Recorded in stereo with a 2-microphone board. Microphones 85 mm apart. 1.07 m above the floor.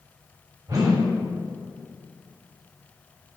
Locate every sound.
0.7 s a whoosh: 45° right (ahead or behind), 2.5 m